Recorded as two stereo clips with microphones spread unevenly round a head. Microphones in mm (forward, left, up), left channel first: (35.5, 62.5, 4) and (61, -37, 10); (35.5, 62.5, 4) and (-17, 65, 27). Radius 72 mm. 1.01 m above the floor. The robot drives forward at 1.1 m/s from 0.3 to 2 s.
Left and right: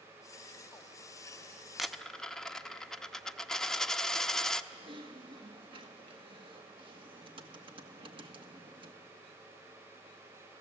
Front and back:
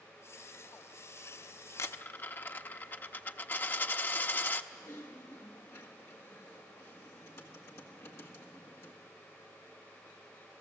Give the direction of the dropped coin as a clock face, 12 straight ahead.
12 o'clock.